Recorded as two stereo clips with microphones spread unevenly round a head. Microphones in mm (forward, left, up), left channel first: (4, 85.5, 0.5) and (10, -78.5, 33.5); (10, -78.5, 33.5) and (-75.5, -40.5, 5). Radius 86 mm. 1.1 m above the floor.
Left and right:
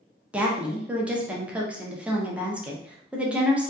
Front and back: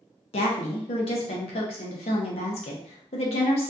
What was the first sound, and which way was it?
A woman speaking, straight ahead.